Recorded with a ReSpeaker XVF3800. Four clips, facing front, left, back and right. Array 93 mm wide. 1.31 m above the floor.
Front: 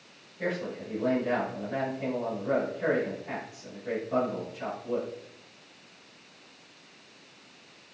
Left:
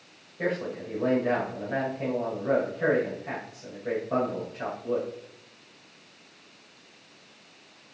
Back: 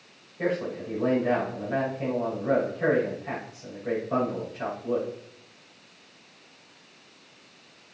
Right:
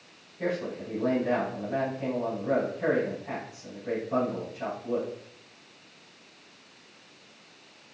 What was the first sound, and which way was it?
A man speaking, 130° left.